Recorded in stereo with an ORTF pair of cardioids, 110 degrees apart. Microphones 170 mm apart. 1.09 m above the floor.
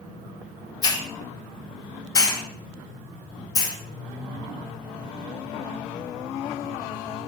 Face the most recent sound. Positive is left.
turn(degrees=25)